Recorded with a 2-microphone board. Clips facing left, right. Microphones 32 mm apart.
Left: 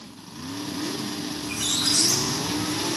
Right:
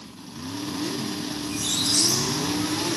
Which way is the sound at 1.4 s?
70° left (ahead or behind).